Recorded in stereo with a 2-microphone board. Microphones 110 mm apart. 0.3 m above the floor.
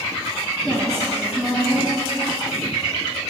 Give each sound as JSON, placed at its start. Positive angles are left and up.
{"t": 0.6, "sound": "a woman speaking", "side_deg": 5, "distance_m": 1.8}